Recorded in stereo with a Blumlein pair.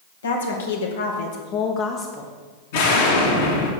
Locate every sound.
0.2 s a woman speaking: 70° left, 1.5 m; by 2.3 s 10° left, 0.9 m
2.7 s an explosion: 50° left, 1.9 m